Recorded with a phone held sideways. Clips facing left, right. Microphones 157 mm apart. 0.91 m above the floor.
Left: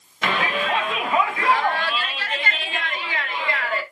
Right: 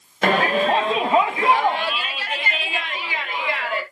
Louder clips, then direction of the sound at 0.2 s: Right 6 dB; 45° right (ahead or behind).